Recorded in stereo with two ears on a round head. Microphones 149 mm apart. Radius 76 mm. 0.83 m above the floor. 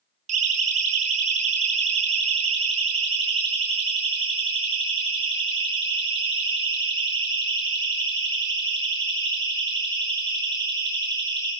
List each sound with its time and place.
0.3 s a siren: 45° right (ahead or behind), 6 m; by 11.5 s 25° right (ahead or behind), 15.5 m